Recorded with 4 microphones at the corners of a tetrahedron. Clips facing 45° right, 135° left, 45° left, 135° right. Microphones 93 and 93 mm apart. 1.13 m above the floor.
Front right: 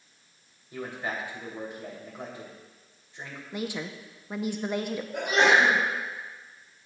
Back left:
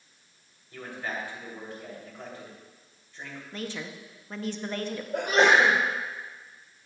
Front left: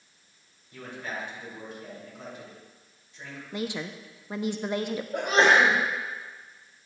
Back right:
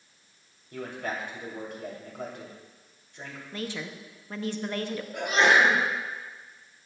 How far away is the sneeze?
About 4 m.